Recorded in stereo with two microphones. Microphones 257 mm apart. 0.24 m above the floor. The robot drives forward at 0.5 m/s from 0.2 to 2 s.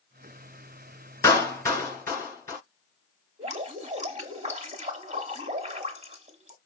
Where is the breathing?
I don't hear breathing.